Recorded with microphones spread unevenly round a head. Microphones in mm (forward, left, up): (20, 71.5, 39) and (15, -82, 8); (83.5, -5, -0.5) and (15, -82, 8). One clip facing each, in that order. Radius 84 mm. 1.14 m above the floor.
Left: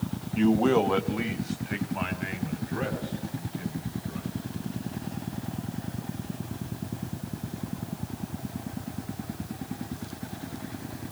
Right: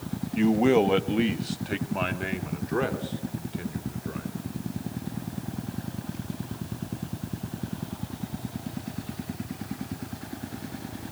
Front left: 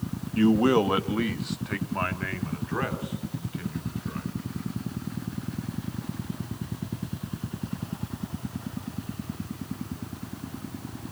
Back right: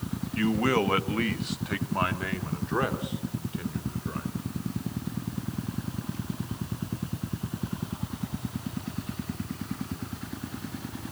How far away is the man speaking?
About 1.5 m.